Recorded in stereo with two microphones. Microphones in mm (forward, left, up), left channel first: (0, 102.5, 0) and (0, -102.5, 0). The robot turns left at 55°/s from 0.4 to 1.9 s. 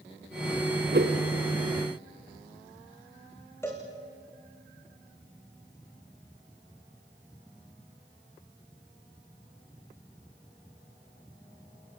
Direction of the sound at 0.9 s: 50° right (ahead or behind).